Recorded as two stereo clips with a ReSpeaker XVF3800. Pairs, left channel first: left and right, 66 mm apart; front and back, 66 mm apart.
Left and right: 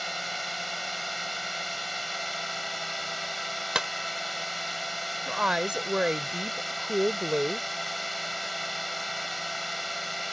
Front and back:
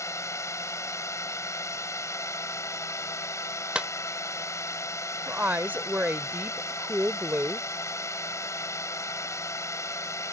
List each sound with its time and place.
0.0 s a drone: straight ahead
3.8 s a clap: 145° right
5.3 s a woman speaking: 155° right